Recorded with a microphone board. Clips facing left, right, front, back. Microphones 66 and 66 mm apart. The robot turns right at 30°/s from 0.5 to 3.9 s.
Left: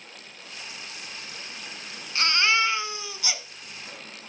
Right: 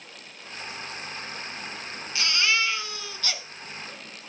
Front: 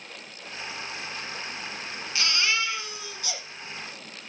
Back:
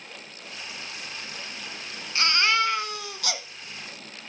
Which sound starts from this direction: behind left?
A baby crying, at 2.1 s.